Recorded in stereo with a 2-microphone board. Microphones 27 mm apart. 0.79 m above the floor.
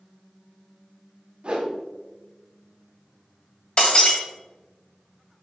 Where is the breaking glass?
40° left (ahead or behind), 1.3 m.